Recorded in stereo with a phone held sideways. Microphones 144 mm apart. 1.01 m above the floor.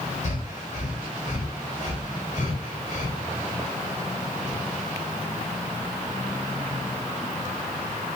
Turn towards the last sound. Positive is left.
turn(degrees=55)  # may be behind; listen again after turning